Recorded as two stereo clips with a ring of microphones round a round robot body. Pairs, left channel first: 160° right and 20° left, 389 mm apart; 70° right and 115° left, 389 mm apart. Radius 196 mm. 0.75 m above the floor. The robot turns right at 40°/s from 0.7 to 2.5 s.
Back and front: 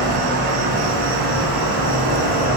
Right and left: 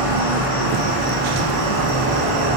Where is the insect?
25° left, 3 m; by 2.6 s 100° left, 3 m.